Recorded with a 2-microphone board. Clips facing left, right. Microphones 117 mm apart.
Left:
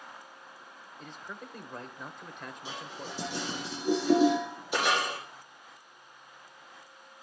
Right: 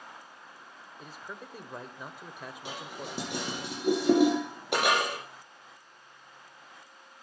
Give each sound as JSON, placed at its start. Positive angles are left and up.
{"t": 1.0, "sound": "a man speaking", "side_deg": -10, "distance_m": 1.1}
{"t": 2.6, "sound": "dishes clattering", "side_deg": -70, "distance_m": 8.5}